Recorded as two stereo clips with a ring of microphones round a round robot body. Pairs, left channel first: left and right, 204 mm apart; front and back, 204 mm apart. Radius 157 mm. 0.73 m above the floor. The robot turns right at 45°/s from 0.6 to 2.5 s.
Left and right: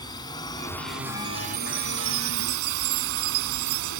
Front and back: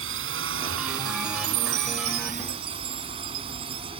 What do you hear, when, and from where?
0.0 s a drone: 165° left; by 4.0 s 110° right
1.4 s a chime: 170° right; by 3.9 s 120° right